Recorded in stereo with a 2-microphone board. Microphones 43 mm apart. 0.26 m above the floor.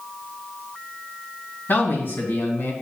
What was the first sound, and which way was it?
A man speaking, 55° left (ahead or behind).